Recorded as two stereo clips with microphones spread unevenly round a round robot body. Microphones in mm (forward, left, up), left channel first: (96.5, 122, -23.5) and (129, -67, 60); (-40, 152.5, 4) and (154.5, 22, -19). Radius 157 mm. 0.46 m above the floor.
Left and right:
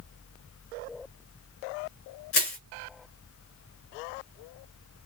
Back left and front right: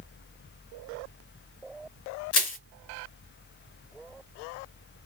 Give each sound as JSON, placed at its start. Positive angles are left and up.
{"t": 2.3, "sound": "crushing", "azimuth_deg": 150, "distance_m": 3.0}